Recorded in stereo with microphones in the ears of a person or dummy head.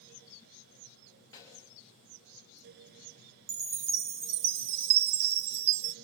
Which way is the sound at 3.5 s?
30° right (ahead or behind).